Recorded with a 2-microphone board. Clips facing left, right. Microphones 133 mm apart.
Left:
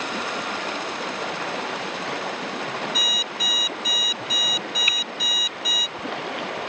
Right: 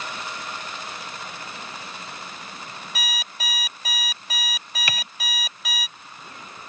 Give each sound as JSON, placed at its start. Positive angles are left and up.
{"t": 0.0, "sound": "running water", "side_deg": 75}
{"t": 3.0, "sound": "an alarm clock", "side_deg": -65}
{"t": 4.9, "sound": "typing on a keyboard", "side_deg": -80}